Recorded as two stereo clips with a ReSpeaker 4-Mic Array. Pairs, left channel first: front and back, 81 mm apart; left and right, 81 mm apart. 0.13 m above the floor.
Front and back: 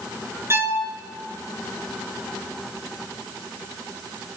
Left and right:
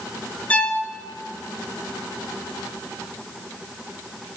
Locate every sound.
0.5 s a violin: 155° left, 1.7 m